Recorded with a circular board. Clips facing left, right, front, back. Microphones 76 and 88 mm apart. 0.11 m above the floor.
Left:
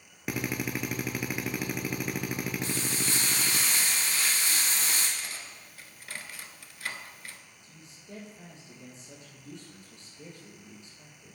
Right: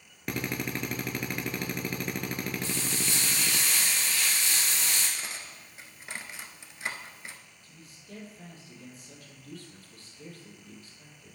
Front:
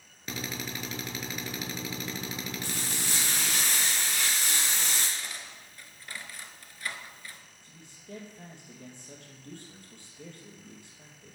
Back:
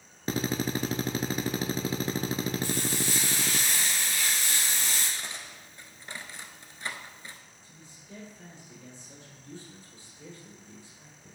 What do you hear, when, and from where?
0.3 s a drill: 170° left, 0.6 m
2.6 s frying: 30° left, 4.5 m
5.2 s cutlery clinking: 135° right, 0.9 m
7.6 s a man speaking: 20° left, 3 m